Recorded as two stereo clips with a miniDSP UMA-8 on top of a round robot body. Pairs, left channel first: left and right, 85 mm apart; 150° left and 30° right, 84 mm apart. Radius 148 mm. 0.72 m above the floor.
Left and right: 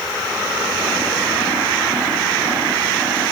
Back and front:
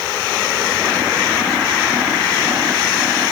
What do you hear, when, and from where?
Only background noise.